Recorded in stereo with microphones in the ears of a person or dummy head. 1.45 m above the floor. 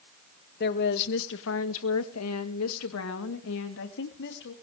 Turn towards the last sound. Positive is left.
turn(degrees=60)  # may be behind; listen again after turning